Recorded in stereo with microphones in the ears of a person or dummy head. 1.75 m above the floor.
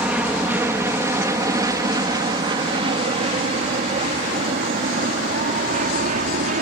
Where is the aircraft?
5° right (ahead or behind); by 6.6 s 45° right (ahead or behind).